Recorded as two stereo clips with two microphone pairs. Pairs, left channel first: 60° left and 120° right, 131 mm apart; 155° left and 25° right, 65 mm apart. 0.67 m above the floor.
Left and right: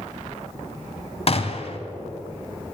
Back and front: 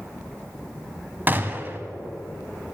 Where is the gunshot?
35° left, 0.7 m.